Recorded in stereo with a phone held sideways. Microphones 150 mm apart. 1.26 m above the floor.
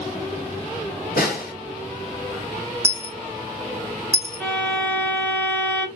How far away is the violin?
About 0.9 m.